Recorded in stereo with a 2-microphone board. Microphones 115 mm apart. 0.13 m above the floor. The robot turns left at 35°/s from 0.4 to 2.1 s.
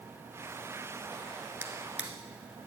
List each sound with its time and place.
1.6 s a drawer: 20° right (ahead or behind), 1.2 m; by 2.1 s 10° right (ahead or behind), 1.2 m